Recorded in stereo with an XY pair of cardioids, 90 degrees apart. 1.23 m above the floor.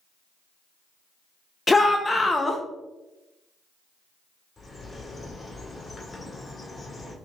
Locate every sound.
1.7 s a shout: 25° left, 0.5 m
4.6 s a bird: 25° left, 1.5 m